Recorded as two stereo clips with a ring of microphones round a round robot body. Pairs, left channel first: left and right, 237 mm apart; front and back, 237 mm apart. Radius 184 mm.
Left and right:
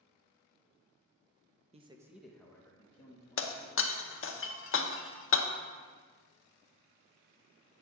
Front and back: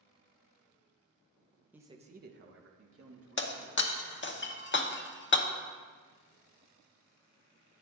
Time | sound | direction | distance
1.7 | a man speaking | 105° right | 0.7 m
3.4 | breaking glass | 50° left | 0.9 m